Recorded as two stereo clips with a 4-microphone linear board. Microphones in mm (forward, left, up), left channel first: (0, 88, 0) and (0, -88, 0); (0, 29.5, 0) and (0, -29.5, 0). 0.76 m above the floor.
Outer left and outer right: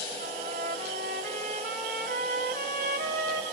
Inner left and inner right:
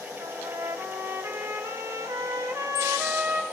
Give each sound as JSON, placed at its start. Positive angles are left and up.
{"t": 0.2, "sound": "a trumpet", "side_deg": -85, "distance_m": 1.4}